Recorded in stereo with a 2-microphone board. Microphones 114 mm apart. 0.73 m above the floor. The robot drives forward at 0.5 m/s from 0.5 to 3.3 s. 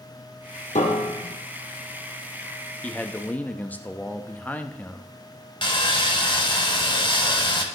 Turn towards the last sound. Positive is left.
turn(degrees=45)  # may be behind; listen again after turning